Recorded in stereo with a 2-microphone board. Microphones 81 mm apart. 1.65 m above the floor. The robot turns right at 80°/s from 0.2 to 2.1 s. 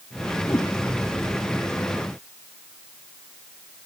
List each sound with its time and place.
0.5 s a whoosh: 40° left (ahead or behind), 1.1 m; by 0.7 s 20° left (ahead or behind), 1.1 m